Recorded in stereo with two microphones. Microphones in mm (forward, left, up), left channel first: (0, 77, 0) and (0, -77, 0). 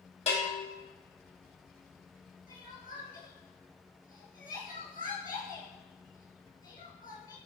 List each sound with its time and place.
0.3 s a bell: 45° left (ahead or behind), 2.0 m
2.5 s crying: 65° left (ahead or behind), 3.5 m